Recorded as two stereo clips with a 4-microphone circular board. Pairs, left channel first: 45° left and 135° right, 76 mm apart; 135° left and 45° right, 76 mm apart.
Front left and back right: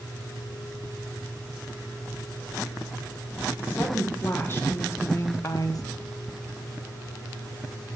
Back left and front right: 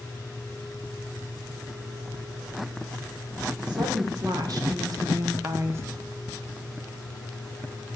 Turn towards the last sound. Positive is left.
turn(degrees=10)